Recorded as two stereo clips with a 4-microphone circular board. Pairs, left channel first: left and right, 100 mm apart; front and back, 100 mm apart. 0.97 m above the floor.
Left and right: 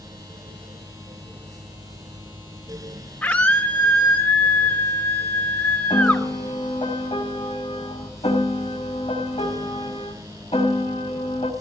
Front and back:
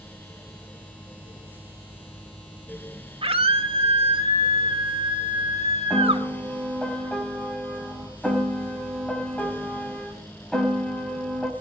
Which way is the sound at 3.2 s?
160° left.